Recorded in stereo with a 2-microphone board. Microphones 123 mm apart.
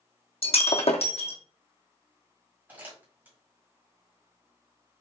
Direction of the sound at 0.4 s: 60° left (ahead or behind).